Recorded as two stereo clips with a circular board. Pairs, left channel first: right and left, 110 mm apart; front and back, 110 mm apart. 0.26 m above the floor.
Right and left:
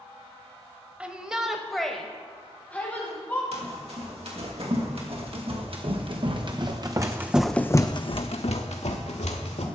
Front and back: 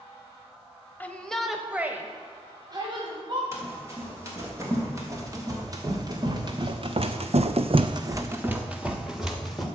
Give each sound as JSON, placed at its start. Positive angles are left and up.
{"t": 1.0, "sound": "a shout", "azimuth_deg": 35, "distance_m": 0.9}
{"t": 3.5, "sound": "running footsteps", "azimuth_deg": 115, "distance_m": 4.0}